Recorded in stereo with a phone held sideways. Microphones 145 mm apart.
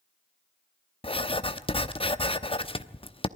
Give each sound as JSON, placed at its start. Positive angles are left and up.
{"t": 1.0, "sound": "writing", "side_deg": 40, "distance_m": 0.8}